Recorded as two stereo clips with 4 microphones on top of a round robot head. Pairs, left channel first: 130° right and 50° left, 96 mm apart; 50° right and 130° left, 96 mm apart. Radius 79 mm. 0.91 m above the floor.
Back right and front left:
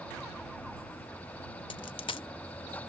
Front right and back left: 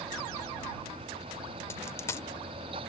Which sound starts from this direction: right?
A dropped coin, at 1.7 s.